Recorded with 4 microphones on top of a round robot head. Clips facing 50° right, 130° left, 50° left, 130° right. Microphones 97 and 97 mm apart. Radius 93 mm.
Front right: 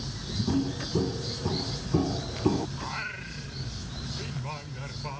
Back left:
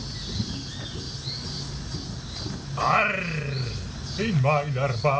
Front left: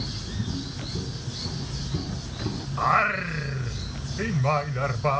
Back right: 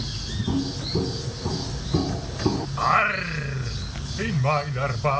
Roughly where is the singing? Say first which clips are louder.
Back left 14 dB, even; behind left.